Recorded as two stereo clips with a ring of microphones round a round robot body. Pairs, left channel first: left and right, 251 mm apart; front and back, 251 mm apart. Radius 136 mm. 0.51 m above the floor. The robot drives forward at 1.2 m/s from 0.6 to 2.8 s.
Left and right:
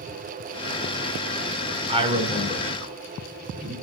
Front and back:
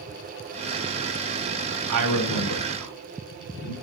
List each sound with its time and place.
1.9 s a man speaking: 160° right, 3 m; by 3.7 s 165° right, 4 m